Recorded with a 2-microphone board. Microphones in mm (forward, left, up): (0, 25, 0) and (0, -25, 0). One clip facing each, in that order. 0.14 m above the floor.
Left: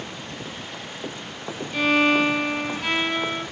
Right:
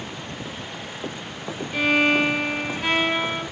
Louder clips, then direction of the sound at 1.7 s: Even; 10° right (ahead or behind).